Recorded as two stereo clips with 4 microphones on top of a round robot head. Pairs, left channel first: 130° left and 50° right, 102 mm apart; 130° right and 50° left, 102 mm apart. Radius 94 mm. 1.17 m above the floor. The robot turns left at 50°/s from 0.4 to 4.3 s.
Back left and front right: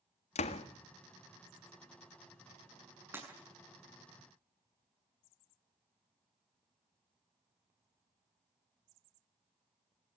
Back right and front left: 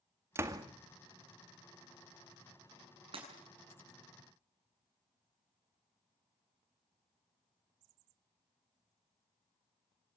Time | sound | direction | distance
0.3 | a door slam | 115° left | 1.8 m
3.1 | breaking glass | 15° left | 8 m